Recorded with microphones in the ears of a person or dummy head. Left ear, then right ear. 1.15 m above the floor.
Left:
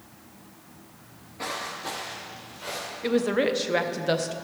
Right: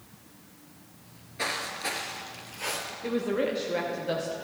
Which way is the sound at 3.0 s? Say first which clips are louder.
Left 5 dB; 25° left (ahead or behind).